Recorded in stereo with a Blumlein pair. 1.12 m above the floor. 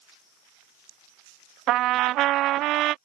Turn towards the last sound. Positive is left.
turn(degrees=-35)